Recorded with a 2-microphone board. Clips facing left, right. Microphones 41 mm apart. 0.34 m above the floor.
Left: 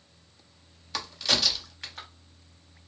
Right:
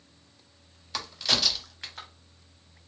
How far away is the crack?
About 0.7 m.